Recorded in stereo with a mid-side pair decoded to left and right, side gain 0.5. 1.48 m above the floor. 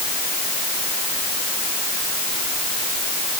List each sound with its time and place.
Only background noise.